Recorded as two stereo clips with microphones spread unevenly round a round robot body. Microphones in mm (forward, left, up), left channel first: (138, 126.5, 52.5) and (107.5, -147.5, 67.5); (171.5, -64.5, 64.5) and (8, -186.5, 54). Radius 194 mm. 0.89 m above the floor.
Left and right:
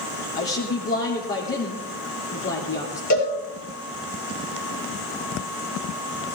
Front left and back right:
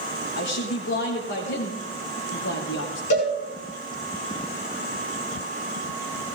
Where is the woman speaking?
40° left, 3 m.